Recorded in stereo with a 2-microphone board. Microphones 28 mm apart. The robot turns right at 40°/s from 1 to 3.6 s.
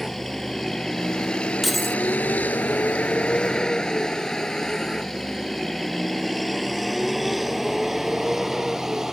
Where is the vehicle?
10° left (ahead or behind); by 9.1 s 15° right (ahead or behind).